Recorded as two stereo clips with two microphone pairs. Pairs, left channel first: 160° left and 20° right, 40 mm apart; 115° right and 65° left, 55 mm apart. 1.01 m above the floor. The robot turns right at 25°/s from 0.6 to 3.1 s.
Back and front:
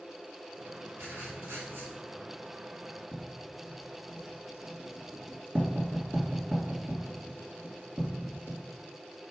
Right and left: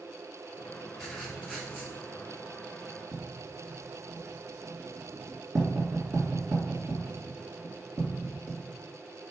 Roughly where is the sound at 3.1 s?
Ahead left.